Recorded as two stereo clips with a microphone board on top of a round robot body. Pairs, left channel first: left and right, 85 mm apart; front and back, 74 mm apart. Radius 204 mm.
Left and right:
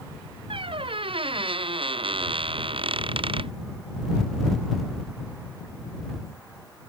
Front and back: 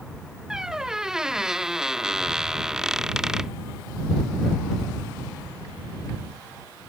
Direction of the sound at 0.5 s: 100° right.